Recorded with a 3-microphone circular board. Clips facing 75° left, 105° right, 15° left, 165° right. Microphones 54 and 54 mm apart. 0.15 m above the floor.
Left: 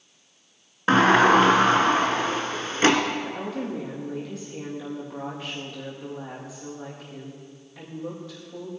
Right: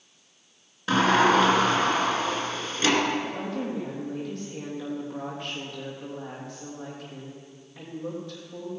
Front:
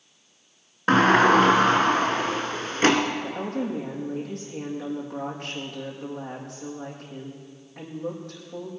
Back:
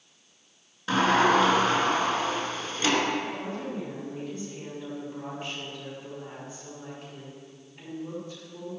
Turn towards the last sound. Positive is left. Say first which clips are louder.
# even, front 4 dB
turn(degrees=-15)